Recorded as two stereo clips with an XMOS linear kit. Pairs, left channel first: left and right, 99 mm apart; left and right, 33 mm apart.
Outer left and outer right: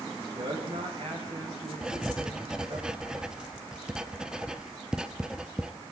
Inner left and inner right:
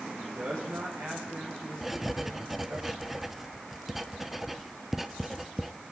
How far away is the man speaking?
About 6 m.